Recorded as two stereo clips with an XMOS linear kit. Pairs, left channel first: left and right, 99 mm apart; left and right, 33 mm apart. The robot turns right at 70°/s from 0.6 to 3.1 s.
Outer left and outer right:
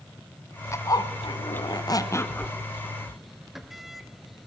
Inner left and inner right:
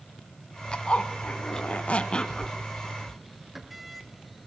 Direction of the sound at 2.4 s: 50° right (ahead or behind).